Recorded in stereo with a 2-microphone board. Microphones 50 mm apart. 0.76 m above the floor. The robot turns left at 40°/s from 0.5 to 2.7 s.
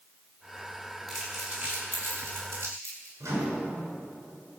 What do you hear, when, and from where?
1.1 s crumpling: centre (ahead or behind), 6.5 m; by 3.1 s 65° right (ahead or behind), 6.5 m
3.2 s a microwave: 75° right (ahead or behind), 6.5 m